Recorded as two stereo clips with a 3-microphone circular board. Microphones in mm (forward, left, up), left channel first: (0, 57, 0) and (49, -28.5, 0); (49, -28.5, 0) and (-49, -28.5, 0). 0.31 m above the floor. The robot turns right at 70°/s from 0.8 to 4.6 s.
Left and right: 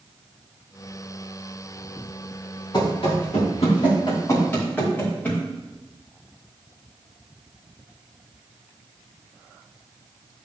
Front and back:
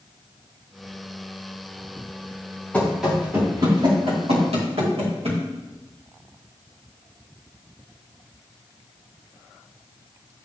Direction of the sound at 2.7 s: 75° left.